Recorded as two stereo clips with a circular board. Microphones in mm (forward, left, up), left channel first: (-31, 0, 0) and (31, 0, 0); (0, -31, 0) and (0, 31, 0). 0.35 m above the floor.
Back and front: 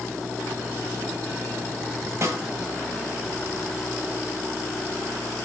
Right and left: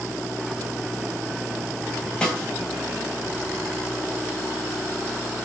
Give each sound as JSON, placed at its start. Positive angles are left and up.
{"t": 2.2, "sound": "a snare drum", "azimuth_deg": -15, "distance_m": 2.0}